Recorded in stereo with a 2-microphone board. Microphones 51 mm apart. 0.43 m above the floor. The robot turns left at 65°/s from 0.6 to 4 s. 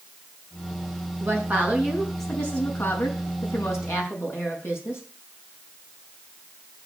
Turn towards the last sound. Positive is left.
turn(degrees=55)